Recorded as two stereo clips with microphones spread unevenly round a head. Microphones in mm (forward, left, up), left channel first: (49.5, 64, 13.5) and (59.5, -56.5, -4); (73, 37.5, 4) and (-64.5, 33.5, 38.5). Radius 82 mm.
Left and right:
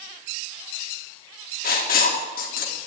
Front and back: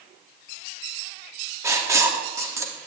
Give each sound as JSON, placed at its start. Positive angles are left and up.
{"t": 1.6, "sound": "writing", "azimuth_deg": 110, "distance_m": 3.0}